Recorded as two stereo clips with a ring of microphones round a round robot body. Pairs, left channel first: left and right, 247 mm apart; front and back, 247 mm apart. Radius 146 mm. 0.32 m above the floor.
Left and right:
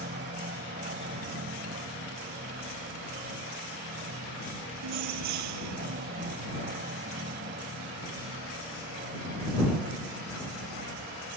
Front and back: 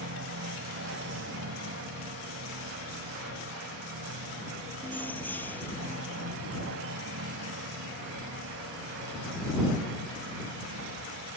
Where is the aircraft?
145° right.